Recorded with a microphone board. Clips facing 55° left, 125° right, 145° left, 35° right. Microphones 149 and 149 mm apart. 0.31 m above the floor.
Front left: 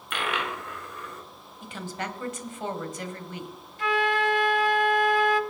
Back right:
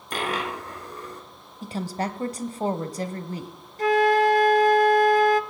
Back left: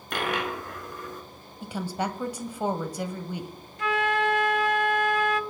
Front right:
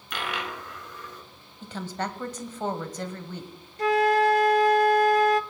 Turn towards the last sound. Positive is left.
turn(degrees=-80)